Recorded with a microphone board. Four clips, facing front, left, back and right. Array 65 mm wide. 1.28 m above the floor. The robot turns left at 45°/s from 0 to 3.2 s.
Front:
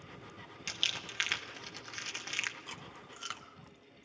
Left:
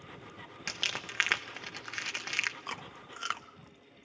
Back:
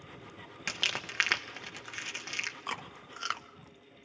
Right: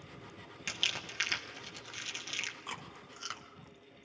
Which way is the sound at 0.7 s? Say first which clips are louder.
Left 1 dB, back 5 dB; 160° left.